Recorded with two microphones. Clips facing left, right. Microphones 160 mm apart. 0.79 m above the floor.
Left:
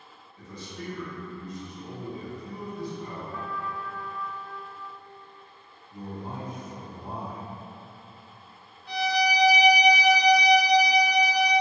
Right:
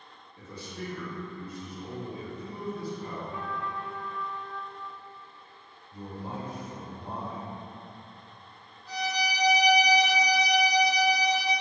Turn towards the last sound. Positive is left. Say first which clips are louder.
# left 6 dB
turn(degrees=65)  # may be behind; listen again after turning